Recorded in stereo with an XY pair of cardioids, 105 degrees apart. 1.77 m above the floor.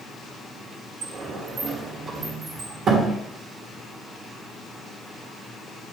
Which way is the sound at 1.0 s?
60° right.